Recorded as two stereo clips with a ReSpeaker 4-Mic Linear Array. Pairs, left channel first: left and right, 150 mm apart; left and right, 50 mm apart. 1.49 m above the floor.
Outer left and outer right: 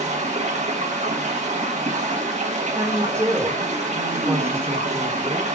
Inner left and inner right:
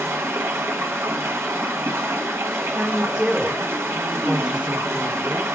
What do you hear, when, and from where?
0.0 s running water: 50° right (ahead or behind), 1.0 m
2.8 s a woman speaking: 15° right (ahead or behind), 1.1 m